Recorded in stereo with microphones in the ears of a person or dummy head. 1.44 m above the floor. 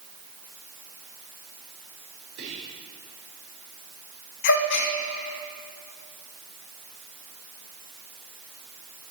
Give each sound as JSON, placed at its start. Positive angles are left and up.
{"t": 2.4, "sound": "whispering", "side_deg": -85, "distance_m": 4.5}
{"t": 4.4, "sound": "a gasp", "side_deg": 65, "distance_m": 0.7}